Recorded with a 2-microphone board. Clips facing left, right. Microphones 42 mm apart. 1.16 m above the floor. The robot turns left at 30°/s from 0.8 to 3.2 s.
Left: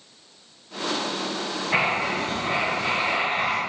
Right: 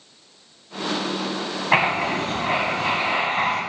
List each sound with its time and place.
1.7 s writing: 65° right, 1.8 m; by 3.6 s 110° right, 1.8 m